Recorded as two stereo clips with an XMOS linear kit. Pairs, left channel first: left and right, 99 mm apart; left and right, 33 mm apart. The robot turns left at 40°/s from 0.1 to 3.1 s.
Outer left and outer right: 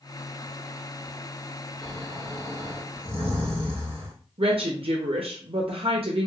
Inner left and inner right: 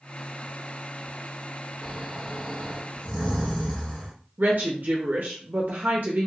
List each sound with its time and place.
1.8 s snoring: straight behind, 1.5 m; by 4.1 s 130° left, 1.5 m
4.4 s a woman speaking: 65° right (ahead or behind), 0.6 m